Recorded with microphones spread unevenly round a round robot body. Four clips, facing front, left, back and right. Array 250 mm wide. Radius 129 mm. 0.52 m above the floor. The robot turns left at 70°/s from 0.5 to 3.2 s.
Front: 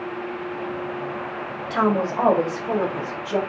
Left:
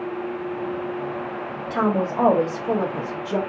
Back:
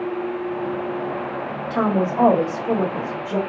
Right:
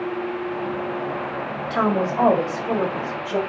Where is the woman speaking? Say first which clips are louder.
Right 1 dB, even; 145° right, 1.0 m; by 3.4 s 110° left, 1.0 m.